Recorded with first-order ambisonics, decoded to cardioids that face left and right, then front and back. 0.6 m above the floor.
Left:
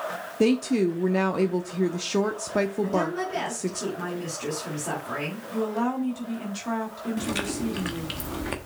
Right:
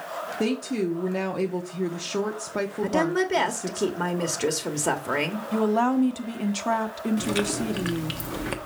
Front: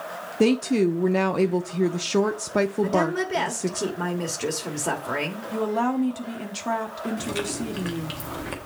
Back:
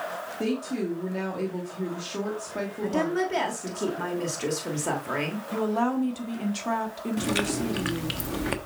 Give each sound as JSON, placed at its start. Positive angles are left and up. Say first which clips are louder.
{"t": 0.4, "sound": "a woman speaking", "louder": "left 6 dB, front 10 dB", "azimuth_deg": 15, "distance_m": 0.7}
{"t": 2.8, "sound": "a woman speaking", "louder": "right 3 dB, front 3 dB", "azimuth_deg": -80, "distance_m": 1.3}
{"t": 5.5, "sound": "a woman speaking", "louder": "right 5 dB, front 2 dB", "azimuth_deg": -80, "distance_m": 1.2}
{"t": 7.2, "sound": "chewing", "louder": "right 2 dB, back 5 dB", "azimuth_deg": -170, "distance_m": 1.0}